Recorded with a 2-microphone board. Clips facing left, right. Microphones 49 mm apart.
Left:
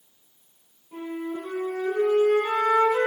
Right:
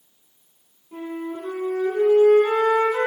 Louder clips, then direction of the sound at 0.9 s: Right 1 dB; 5° right (ahead or behind).